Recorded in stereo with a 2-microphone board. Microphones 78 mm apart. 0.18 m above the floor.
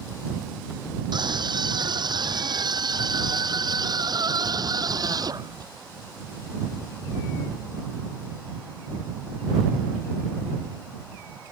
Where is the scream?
70° right (ahead or behind); by 5.7 s 55° right (ahead or behind).